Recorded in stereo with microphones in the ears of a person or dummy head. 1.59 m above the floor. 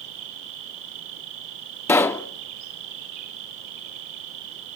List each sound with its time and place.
0.0 s an insect: 55° right (ahead or behind), 8 m
1.9 s a pop: 20° left (ahead or behind), 0.7 m